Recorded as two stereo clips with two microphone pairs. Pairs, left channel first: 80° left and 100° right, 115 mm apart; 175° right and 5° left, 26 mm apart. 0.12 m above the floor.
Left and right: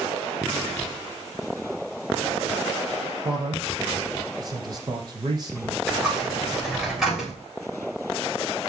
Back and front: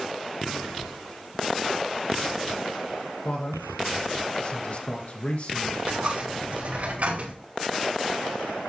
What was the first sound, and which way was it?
A man speaking, 150° right.